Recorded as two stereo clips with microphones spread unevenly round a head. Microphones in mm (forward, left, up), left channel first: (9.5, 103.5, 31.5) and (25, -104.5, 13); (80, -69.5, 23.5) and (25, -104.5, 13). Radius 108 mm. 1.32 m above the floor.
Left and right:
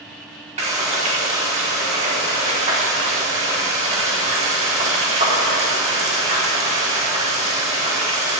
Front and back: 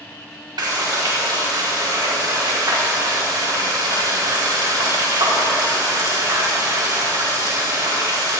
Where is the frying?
145° right, 4.5 m.